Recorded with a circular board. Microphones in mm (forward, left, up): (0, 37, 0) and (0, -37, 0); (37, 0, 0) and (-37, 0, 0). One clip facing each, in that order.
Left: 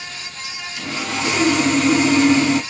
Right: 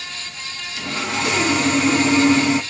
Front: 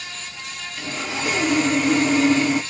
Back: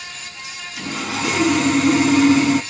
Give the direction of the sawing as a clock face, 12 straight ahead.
6 o'clock.